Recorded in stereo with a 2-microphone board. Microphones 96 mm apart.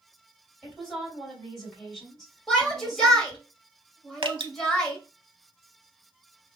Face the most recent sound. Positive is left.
turn(degrees=-65)  # may be behind; listen again after turning